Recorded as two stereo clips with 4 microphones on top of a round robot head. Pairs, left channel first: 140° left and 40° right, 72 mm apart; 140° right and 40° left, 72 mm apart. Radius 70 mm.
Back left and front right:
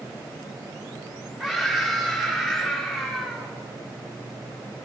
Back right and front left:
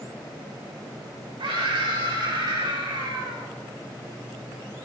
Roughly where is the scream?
Ahead left.